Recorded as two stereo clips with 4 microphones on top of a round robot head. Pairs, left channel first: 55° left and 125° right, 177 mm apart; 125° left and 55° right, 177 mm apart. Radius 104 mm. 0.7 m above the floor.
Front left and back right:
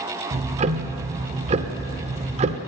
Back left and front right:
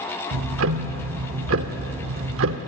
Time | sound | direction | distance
0.3 | ticking | 70° right | 0.7 m